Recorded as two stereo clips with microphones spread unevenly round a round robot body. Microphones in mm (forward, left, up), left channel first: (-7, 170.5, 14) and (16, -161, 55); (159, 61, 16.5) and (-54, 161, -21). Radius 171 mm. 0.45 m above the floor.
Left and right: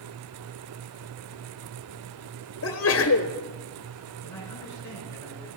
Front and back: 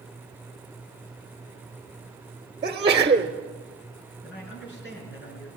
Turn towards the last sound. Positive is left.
turn(degrees=10)